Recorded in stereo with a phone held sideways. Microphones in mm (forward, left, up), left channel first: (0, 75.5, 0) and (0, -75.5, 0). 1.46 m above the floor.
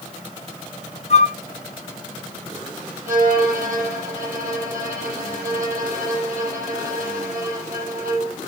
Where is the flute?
45° left (ahead or behind), 1.1 m.